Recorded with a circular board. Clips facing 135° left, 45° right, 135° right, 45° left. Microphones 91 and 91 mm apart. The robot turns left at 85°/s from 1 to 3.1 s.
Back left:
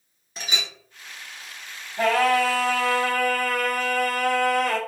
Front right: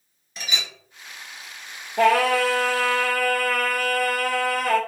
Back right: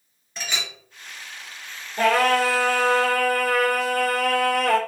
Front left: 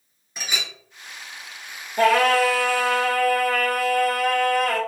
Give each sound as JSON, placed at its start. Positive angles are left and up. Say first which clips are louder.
{"t": 0.4, "sound": "a clink", "louder": "even, even", "azimuth_deg": 115, "distance_m": 0.9}
{"t": 2.0, "sound": "singing", "louder": "front right 2 dB, front left 2 dB", "azimuth_deg": -30, "distance_m": 0.9}